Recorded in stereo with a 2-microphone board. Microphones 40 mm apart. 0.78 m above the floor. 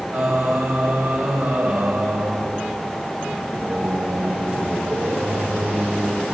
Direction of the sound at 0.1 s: 60° right (ahead or behind).